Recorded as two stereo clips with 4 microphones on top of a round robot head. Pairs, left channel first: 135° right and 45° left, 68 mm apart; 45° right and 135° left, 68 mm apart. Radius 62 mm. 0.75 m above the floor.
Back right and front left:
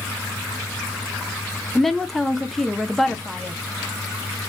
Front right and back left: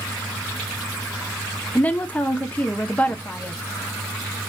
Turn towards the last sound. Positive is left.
turn(degrees=-55)